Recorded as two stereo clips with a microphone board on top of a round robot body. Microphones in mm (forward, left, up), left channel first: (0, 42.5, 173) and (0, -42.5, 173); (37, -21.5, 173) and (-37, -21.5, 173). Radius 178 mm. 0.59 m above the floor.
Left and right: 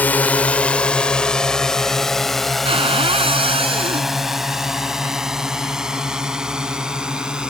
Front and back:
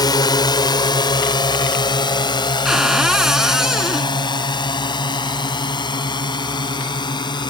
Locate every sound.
0.0 s a drone: 20° left; by 7.5 s 10° right
2.6 s a cupboard door: 95° right